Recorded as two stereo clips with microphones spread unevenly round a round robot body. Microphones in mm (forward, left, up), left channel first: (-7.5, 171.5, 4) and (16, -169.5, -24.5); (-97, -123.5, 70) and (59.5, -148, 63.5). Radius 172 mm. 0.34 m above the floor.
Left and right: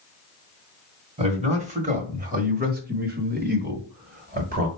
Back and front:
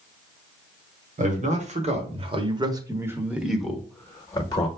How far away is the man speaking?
About 1.7 m.